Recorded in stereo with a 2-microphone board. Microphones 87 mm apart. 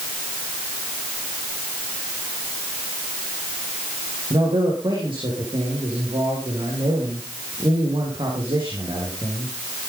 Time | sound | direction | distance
4.3 | a man speaking | 70° right (ahead or behind) | 6 m